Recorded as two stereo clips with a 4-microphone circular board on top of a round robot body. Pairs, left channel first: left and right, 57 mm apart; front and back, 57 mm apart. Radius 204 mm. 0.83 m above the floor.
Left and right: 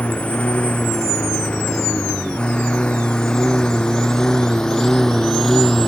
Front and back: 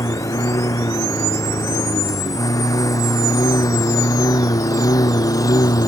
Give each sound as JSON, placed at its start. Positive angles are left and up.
{"t": 0.0, "sound": "a lawn mower", "azimuth_deg": 20}